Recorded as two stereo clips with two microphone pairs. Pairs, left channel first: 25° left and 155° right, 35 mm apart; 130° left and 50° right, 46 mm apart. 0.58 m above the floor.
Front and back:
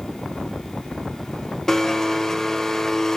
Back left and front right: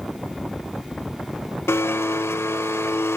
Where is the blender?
105° left, 0.6 m.